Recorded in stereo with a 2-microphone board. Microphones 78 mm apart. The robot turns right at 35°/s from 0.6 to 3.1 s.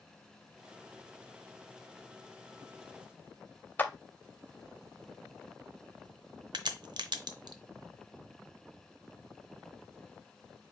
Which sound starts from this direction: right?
A crack, at 6.5 s.